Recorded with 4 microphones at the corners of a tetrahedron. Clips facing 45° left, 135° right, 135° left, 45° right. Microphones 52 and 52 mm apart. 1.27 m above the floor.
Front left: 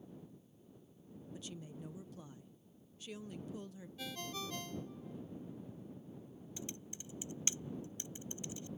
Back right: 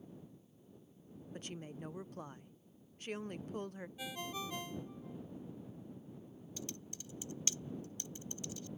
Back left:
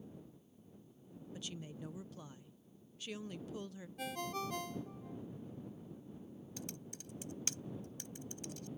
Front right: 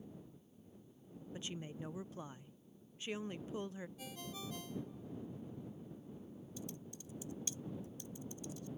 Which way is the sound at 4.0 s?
155° left.